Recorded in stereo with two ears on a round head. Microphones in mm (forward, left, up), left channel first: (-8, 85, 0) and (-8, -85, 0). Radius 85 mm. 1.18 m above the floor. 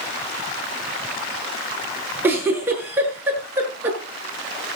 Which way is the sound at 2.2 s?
10° right (ahead or behind).